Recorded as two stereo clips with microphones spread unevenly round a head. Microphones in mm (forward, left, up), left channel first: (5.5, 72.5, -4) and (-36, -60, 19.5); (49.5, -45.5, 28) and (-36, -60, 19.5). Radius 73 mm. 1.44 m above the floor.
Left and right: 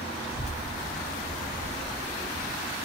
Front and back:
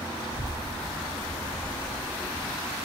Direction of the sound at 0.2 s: 25° left.